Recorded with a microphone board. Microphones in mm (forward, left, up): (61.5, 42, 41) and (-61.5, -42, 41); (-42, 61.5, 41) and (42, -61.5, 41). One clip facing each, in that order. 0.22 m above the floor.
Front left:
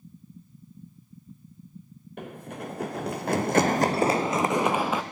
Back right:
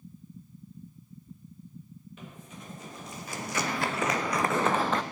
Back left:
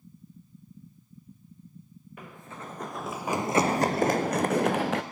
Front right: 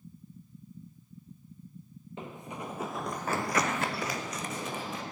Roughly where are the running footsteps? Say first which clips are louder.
Front left 12 dB, front right 3 dB; ahead.